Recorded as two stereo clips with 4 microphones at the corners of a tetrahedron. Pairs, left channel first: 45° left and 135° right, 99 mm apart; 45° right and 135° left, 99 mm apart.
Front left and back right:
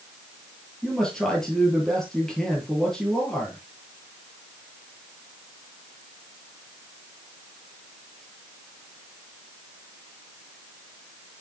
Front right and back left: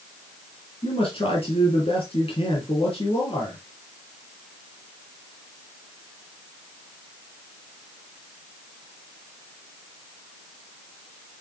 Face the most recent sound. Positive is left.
turn(degrees=-40)